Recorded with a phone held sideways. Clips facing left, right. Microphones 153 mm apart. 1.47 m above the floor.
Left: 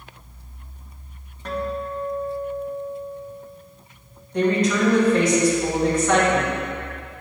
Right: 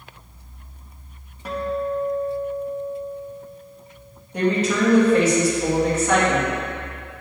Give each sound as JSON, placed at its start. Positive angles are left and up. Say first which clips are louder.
{"t": 1.4, "sound": "a guitar", "louder": "right 3 dB", "side_deg": -10, "distance_m": 0.8}
{"t": 4.3, "sound": "a woman speaking", "louder": "left 1 dB", "side_deg": -5, "distance_m": 2.0}